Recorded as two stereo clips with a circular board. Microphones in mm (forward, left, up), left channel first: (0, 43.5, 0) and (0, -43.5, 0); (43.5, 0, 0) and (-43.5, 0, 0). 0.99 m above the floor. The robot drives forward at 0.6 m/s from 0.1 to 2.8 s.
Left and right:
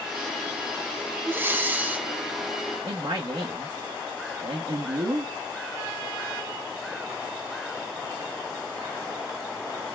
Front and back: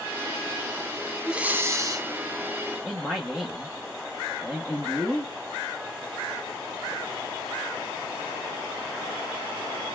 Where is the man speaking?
105° right, 1.2 m.